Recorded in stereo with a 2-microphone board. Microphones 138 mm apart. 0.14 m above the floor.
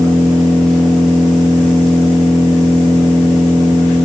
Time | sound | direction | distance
0.0 | an engine running | 5° left (ahead or behind) | 1.6 m